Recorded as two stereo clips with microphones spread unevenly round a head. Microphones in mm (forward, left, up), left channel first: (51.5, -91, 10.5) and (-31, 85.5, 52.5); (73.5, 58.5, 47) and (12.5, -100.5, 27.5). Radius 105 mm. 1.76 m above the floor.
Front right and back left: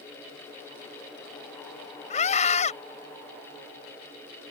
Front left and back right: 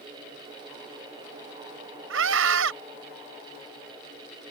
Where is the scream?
125° right.